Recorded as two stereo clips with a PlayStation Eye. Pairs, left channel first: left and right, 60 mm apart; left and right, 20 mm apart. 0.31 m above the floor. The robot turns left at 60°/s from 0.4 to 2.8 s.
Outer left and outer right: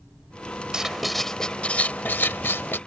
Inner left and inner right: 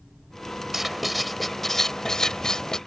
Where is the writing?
160° right; by 2.8 s 80° left.